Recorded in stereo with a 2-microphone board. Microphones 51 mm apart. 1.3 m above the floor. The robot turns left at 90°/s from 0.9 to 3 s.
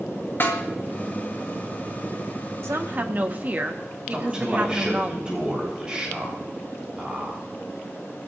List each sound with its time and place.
0.4 s a snare drum: 45° left (ahead or behind), 2 m
2.6 s a woman speaking: 110° right, 1.5 m; by 5.1 s 145° right, 1.5 m
4.1 s a man speaking: 15° right (ahead or behind), 7.5 m